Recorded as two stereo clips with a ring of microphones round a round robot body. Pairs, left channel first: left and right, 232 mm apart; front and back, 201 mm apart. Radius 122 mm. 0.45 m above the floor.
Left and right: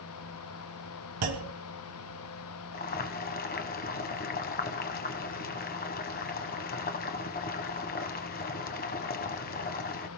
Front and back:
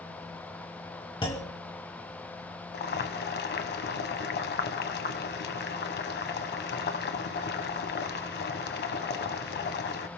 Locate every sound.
1.2 s a clunk: 70° right, 2.5 m
2.7 s boiling: 35° left, 1.3 m